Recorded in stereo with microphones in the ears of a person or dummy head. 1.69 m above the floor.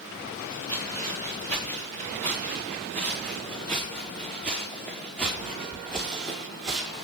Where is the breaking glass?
I don't hear breaking glass.